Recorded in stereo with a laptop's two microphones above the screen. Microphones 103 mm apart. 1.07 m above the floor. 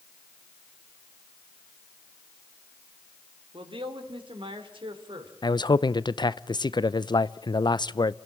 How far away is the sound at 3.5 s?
About 3 m.